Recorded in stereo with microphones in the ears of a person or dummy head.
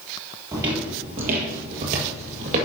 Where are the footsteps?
15° right (ahead or behind), 1.6 m; by 2.7 s 40° right (ahead or behind), 2 m.